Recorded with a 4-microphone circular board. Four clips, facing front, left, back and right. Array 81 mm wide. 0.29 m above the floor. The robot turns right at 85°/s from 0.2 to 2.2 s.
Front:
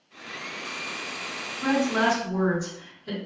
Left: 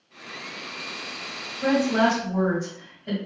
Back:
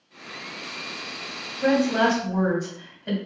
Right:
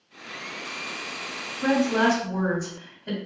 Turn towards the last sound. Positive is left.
turn(degrees=-170)